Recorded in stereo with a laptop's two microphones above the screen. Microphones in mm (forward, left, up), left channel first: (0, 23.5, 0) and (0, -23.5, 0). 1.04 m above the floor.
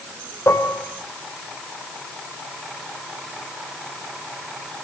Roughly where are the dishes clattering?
Left.